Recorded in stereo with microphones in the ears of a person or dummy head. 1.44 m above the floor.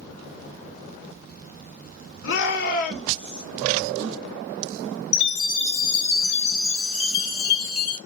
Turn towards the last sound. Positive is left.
turn(degrees=40)  # may be behind; listen again after turning